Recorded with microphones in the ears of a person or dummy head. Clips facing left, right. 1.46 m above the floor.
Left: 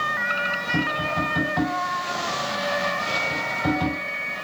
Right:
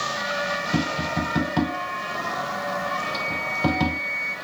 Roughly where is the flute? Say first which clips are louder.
Left 1 dB; right.